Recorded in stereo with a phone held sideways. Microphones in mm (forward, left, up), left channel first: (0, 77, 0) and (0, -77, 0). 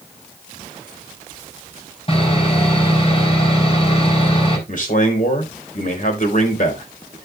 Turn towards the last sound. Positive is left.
turn(degrees=60)  # may be behind; listen again after turning